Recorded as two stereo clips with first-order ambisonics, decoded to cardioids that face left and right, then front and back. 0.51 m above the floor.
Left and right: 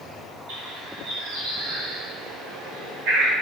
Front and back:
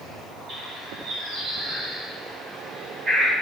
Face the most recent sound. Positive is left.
turn(degrees=-120)